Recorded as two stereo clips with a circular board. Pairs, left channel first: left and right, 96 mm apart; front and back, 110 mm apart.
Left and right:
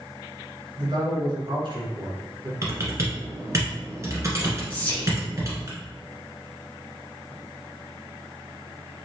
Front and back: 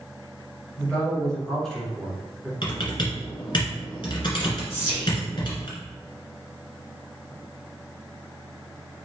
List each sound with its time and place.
0.8 s a man speaking: 85° right, 2 m
2.6 s typing on a keyboard: 35° right, 1.5 m
4.7 s whispering: 45° left, 1.1 m